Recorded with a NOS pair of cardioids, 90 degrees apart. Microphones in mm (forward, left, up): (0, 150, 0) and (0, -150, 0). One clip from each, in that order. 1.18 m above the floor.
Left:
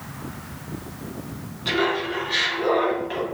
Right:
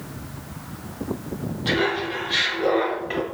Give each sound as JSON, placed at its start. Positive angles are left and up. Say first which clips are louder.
{"t": 1.6, "sound": "laughter", "louder": "even", "azimuth_deg": 0, "distance_m": 1.7}